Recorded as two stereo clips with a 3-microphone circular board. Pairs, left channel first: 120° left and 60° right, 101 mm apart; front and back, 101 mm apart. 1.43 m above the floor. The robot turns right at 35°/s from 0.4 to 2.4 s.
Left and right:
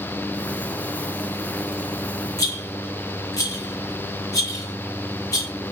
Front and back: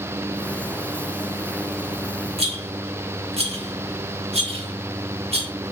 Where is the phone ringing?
I don't hear a phone ringing.